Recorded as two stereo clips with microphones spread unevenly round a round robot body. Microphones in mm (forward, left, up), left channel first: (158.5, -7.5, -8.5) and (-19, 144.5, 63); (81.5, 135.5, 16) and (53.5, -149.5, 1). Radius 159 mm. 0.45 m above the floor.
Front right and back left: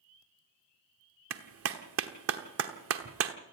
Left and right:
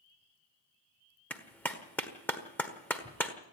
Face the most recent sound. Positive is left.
turn(degrees=170)